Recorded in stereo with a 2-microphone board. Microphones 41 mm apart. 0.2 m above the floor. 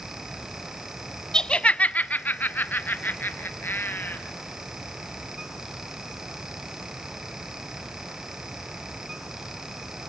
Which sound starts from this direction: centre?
Laughter, at 1.3 s.